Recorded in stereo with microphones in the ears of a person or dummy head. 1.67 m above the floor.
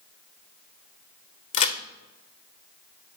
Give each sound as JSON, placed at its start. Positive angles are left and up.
{"t": 1.5, "sound": "a crack", "side_deg": 40, "distance_m": 0.6}